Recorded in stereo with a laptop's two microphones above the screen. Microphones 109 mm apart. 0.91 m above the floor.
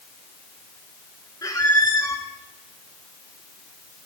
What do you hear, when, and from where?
1.4 s a squeak: 35° left (ahead or behind), 1.0 m